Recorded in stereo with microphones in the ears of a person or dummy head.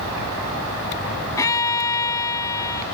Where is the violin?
15° left (ahead or behind).